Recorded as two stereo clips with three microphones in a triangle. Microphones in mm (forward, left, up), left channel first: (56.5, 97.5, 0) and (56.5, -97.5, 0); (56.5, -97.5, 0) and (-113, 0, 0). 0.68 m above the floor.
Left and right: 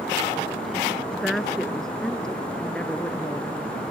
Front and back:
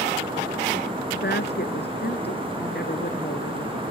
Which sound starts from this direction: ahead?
A woman speaking, at 1.1 s.